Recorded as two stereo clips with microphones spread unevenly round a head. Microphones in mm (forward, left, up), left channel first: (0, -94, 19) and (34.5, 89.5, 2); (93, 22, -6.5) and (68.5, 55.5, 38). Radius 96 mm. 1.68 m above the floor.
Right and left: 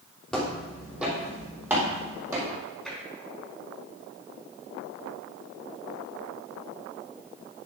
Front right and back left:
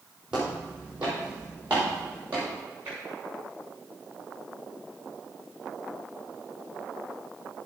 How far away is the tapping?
About 4.5 m.